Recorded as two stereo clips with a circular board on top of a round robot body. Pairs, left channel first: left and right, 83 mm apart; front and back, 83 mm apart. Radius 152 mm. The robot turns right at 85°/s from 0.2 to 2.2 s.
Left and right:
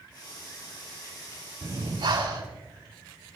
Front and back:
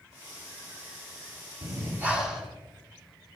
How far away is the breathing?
About 4.5 m.